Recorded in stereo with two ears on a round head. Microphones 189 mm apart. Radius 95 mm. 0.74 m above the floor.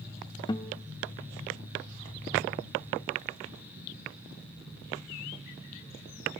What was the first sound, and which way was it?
A guitar, 20° left (ahead or behind).